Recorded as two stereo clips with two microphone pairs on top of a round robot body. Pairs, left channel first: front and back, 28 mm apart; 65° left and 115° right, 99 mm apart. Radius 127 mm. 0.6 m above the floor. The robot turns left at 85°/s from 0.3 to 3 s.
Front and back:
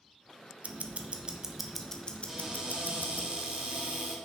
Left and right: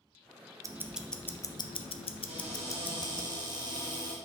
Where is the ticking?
175° right, 0.6 m; by 3.3 s 15° right, 0.6 m.